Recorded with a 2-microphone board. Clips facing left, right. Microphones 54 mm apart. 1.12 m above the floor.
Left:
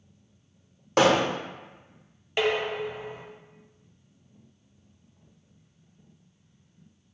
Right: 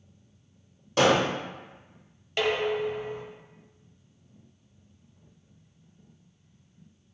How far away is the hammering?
About 1.2 m.